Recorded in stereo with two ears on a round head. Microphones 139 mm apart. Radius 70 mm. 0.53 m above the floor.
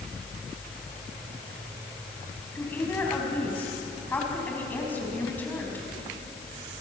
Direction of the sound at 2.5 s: 15° left (ahead or behind).